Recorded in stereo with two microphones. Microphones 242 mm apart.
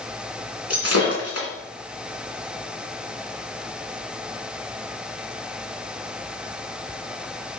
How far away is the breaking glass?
About 3 m.